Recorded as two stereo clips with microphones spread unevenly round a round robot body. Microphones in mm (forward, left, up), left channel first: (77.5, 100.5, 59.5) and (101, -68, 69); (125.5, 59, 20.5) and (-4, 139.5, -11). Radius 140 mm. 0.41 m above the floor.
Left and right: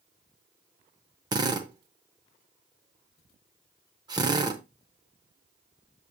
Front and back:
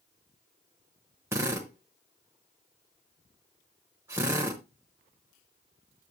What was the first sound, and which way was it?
A drill, 145° right.